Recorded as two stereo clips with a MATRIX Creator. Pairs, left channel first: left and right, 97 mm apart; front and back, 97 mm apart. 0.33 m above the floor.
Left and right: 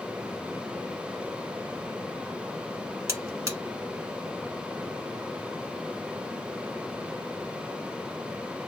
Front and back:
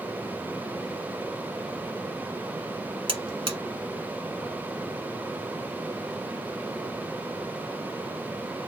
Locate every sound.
3.1 s a buzzer: 150° right, 1.0 m